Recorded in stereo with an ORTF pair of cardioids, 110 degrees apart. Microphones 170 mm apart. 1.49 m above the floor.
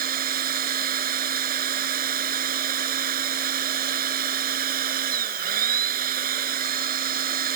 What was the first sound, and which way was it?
A machine running, 55° right.